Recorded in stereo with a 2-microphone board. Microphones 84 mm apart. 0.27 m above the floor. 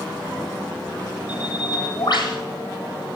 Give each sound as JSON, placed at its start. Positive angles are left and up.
{"t": 1.3, "sound": "a bird", "side_deg": 55, "distance_m": 7.0}